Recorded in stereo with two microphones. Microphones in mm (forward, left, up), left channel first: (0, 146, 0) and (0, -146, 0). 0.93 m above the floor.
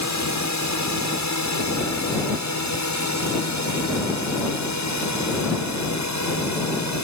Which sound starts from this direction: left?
A drone, at 0.0 s.